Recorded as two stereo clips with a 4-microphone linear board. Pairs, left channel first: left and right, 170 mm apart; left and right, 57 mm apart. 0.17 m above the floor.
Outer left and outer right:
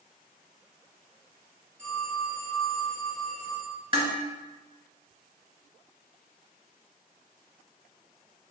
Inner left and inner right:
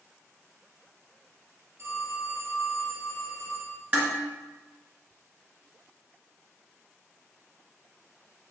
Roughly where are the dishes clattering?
Right.